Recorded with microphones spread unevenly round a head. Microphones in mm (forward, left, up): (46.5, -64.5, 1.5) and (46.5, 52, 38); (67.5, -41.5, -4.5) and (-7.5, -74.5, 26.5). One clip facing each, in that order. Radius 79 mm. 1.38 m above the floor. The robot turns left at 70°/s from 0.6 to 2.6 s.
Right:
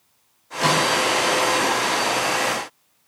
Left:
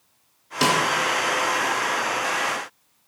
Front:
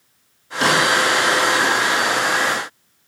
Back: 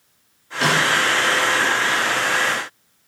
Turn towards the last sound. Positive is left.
turn(degrees=-35)